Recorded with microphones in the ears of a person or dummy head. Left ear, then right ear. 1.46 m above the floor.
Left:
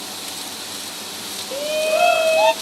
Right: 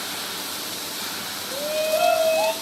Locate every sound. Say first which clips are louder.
1.5 s a shout: left 4 dB; 65° left (ahead or behind), 0.5 m; by 2.5 s 75° left (ahead or behind), 0.9 m